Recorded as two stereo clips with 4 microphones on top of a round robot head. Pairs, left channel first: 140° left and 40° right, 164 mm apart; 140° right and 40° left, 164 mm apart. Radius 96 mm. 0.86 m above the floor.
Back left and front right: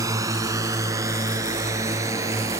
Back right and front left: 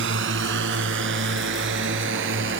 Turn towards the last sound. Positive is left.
turn(degrees=35)